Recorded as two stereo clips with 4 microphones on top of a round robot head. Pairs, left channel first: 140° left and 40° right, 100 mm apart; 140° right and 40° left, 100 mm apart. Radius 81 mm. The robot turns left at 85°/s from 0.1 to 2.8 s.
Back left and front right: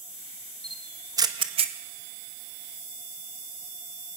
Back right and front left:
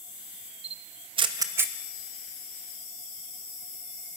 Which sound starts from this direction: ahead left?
A camera shutter, at 0.6 s.